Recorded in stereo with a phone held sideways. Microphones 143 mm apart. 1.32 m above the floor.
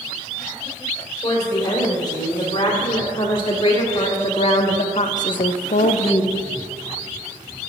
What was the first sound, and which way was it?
A woman speaking, 30° left (ahead or behind).